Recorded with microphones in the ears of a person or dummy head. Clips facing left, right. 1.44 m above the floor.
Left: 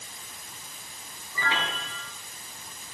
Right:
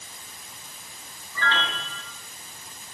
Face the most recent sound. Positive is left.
turn(degrees=15)  # may be behind; listen again after turning